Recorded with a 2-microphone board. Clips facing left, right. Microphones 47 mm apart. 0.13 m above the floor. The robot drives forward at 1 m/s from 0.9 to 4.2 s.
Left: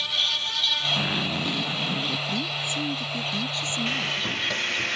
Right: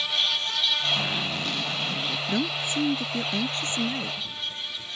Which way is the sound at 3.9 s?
90° left.